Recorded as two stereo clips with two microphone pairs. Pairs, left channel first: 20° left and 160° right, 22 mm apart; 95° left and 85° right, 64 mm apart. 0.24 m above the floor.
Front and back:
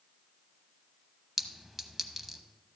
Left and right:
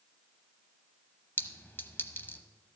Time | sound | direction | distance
1.4 | a clink | 115° left | 0.8 m